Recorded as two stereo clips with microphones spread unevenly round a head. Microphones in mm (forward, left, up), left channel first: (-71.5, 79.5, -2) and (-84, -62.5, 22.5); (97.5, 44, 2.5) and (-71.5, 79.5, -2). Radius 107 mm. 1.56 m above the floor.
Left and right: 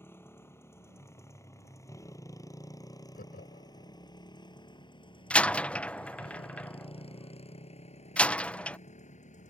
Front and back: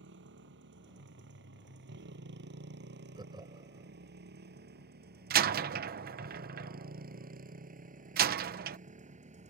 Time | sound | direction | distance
0.0 | a motorcycle | 160° left | ?
3.1 | laughter | 105° left | ?
5.3 | a door slam | 175° left | ?